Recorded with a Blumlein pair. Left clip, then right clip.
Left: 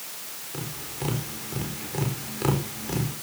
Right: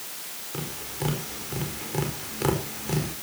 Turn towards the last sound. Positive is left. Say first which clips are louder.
# right 2 dB
turn(degrees=-5)